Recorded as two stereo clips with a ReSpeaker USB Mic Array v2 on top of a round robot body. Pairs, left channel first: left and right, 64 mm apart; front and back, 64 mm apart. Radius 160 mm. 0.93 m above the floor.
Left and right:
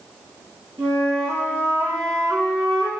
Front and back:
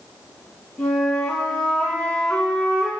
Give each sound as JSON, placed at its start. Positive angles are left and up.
{"t": 0.8, "sound": "a flute", "azimuth_deg": -70, "distance_m": 3.5}